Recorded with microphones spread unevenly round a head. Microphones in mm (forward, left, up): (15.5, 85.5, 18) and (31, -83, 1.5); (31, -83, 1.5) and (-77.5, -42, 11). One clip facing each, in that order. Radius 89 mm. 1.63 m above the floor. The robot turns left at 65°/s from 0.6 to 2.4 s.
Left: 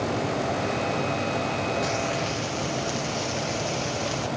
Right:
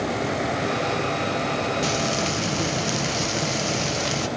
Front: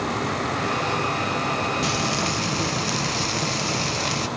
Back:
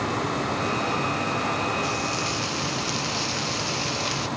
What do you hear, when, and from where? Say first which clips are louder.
1.8 s frying: right 2 dB, front 3 dB; 25° right, 0.8 m; by 4.3 s 65° right, 0.8 m